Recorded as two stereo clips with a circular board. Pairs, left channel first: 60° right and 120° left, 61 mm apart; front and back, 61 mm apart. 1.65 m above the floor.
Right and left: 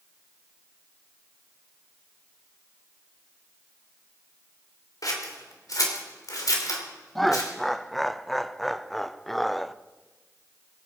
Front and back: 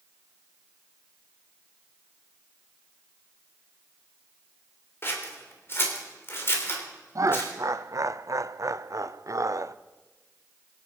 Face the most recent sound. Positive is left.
turn(degrees=-145)